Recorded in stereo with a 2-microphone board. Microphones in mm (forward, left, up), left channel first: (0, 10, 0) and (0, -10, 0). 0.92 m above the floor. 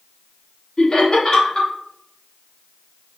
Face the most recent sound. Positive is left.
turn(degrees=35)  # may be behind; listen again after turning